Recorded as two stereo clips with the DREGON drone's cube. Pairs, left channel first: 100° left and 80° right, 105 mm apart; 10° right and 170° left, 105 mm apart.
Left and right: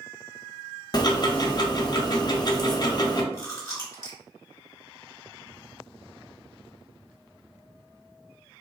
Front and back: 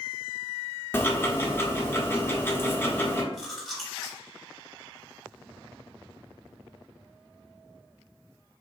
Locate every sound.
0.9 s ticking: 55° left, 0.5 m
3.3 s chewing: 75° left, 1.1 m